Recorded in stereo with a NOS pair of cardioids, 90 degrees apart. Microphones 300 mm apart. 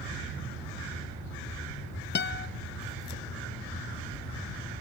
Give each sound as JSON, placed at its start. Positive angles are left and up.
{"t": 2.1, "sound": "a guitar", "azimuth_deg": 35, "distance_m": 0.9}